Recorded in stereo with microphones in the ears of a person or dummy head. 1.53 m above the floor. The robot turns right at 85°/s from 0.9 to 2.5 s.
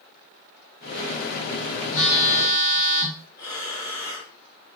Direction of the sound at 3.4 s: 20° left (ahead or behind).